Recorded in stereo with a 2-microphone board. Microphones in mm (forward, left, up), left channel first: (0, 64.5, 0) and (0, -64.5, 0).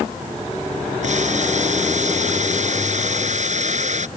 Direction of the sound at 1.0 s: 60° right (ahead or behind).